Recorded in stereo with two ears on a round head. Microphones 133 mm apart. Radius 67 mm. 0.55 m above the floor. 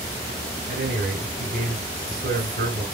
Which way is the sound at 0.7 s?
65° right (ahead or behind).